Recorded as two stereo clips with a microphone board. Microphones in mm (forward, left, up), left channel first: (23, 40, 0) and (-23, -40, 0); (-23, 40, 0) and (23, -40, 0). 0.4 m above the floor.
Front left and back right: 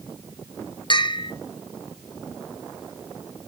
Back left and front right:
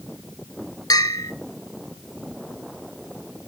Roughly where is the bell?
Left.